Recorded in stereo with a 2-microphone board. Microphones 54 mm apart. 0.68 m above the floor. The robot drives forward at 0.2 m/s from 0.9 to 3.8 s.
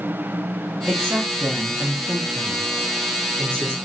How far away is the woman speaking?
About 1.0 m.